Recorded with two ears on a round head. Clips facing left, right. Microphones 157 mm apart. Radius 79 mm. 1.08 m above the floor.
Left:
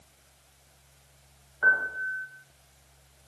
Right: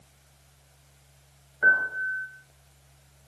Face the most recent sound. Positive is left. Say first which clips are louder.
# right 2 dB
turn(degrees=-25)  # may be behind; listen again after turning